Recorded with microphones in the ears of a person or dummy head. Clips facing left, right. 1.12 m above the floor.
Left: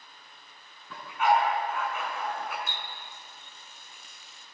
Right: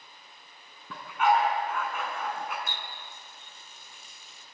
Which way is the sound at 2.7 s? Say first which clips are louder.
Even; 85° right.